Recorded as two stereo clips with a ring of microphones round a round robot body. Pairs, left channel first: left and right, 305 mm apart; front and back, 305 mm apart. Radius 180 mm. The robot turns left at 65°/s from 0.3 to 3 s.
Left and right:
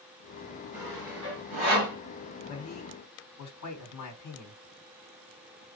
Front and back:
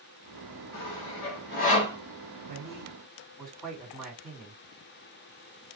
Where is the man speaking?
125° left, 2 m; by 4.6 s 90° left, 2 m.